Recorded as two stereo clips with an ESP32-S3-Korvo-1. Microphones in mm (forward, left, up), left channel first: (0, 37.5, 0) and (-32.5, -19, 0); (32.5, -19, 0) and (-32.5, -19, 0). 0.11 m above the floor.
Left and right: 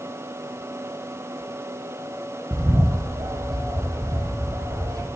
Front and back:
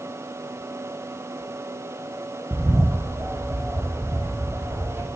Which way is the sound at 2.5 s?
125° right.